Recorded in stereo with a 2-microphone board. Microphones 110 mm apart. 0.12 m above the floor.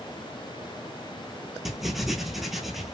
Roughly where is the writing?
Centre.